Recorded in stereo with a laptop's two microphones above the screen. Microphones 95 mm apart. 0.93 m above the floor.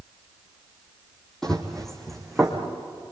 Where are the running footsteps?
5° left (ahead or behind), 2.5 m; by 2.6 s centre (ahead or behind), 4 m.